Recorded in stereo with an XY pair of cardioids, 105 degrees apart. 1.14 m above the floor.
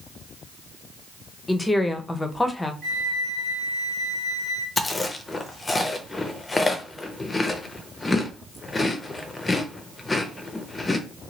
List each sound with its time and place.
1.5 s a woman speaking: 15° left, 0.6 m
2.8 s a flute: 55° right, 1.3 m
4.8 s chewing: 25° left, 0.5 m